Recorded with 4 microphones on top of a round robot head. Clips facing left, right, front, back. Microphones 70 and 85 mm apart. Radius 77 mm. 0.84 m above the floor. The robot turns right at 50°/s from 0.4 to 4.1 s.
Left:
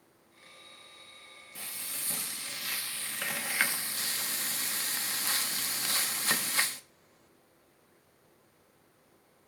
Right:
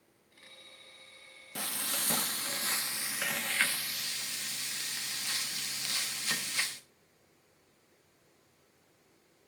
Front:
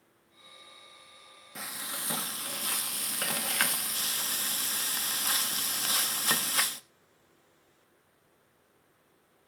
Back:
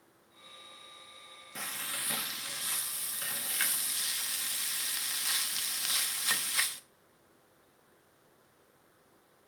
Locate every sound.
1.6 s frying: 90° right, 1.1 m; by 6.8 s 40° left, 1.1 m